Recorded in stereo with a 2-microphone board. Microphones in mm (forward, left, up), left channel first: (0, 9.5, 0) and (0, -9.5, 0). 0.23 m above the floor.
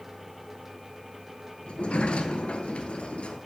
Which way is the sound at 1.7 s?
75° left (ahead or behind).